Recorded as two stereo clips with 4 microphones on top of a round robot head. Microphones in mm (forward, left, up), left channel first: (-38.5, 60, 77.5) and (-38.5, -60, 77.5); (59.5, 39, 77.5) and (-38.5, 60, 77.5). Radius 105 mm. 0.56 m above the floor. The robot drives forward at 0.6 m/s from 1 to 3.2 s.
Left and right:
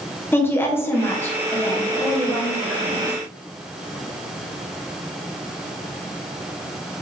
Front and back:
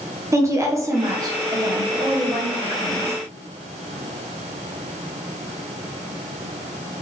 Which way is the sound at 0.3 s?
145° left.